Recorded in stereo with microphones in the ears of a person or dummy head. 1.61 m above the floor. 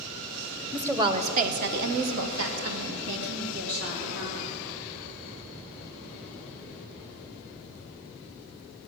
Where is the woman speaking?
10° right (ahead or behind), 1.2 m; by 4.5 s 75° right (ahead or behind), 4 m.